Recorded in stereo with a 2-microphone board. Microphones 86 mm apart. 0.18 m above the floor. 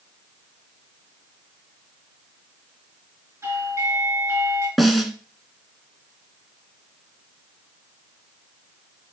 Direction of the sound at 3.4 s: 35° right (ahead or behind).